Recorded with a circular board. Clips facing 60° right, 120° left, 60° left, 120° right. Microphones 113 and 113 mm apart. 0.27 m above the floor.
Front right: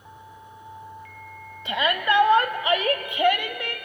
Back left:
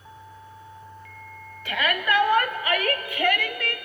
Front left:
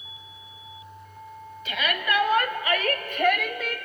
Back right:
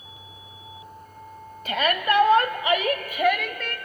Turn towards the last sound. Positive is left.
turn(degrees=-10)